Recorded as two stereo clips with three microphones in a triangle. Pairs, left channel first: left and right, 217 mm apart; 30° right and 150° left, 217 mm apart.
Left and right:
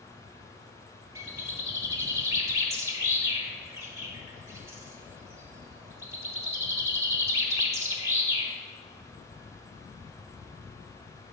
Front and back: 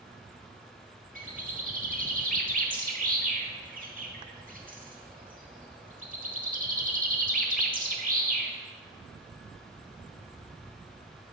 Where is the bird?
165° right, 1.0 m.